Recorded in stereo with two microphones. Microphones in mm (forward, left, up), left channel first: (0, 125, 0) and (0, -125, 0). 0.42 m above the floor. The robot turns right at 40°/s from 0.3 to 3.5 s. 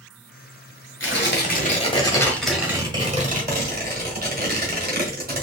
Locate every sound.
1.0 s tearing paper: 120° left, 1.3 m; by 5.4 s 140° right, 1.3 m